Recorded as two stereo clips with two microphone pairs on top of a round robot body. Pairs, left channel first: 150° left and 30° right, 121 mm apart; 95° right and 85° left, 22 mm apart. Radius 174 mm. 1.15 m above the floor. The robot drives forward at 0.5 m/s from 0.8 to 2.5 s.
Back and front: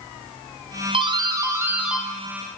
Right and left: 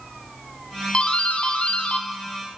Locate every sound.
0.9 s a doorbell: 70° right, 0.8 m; by 2.6 s 130° right, 1.0 m